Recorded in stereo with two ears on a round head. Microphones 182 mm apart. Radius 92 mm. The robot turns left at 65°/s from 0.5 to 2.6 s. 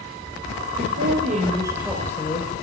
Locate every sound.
0.8 s a woman speaking: 105° right, 2 m; by 2.5 s 140° left, 2 m